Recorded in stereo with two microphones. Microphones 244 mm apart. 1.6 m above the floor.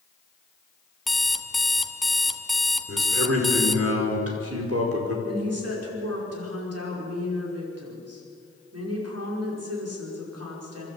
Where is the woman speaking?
80° right, 5.5 m.